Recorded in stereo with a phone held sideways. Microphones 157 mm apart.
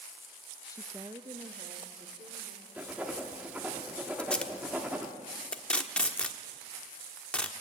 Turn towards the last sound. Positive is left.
turn(degrees=5)  # may be behind; listen again after turning